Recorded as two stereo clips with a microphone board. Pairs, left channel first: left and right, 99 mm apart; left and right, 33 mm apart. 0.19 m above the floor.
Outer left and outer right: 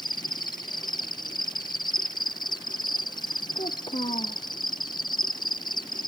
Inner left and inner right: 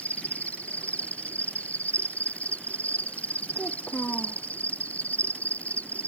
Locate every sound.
0.0 s an insect: 50° left (ahead or behind)
3.5 s a child speaking: 65° left (ahead or behind)